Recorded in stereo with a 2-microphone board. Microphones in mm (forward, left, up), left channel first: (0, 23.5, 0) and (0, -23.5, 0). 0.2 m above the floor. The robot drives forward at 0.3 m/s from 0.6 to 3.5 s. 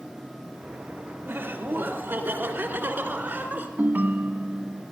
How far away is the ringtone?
About 0.6 m.